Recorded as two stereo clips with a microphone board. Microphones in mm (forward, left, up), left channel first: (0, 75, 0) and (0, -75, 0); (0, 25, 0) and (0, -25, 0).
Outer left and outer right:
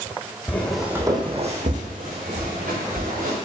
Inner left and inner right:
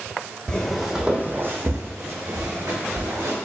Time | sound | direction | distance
0.5 | footsteps | 15° left (ahead or behind) | 1.0 m